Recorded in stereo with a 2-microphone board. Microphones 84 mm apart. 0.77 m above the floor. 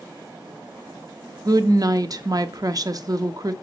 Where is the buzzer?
No buzzer in this recording.